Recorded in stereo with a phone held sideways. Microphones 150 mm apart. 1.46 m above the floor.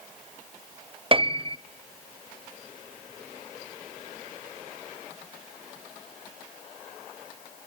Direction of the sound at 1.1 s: 40° right (ahead or behind).